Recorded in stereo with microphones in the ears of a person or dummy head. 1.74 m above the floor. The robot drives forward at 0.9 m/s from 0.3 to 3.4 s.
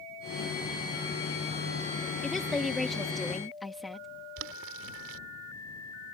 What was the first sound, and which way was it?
A woman speaking, 5° right (ahead or behind).